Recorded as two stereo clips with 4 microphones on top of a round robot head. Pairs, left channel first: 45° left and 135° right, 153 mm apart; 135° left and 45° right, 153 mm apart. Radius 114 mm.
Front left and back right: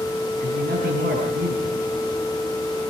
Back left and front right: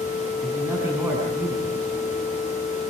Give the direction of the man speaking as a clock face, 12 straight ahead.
4 o'clock.